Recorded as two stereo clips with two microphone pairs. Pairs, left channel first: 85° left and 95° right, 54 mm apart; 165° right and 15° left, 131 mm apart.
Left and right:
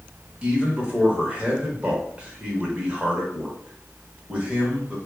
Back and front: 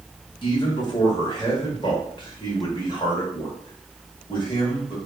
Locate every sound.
0.4 s a man speaking: 155° right, 1.0 m